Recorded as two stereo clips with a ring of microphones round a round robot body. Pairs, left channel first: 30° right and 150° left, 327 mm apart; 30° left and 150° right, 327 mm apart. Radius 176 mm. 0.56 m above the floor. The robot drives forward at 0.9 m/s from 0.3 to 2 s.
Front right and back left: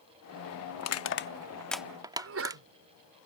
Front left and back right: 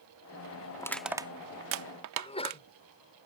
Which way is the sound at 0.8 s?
45° right.